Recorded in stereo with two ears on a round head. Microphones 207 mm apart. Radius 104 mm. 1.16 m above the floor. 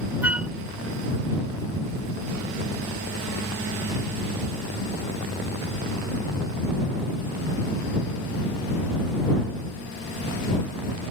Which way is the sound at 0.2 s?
5° right (ahead or behind).